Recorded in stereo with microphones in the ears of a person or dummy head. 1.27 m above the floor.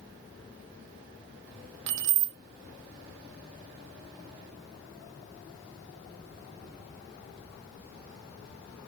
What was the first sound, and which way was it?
Keys jangling, 65° right (ahead or behind).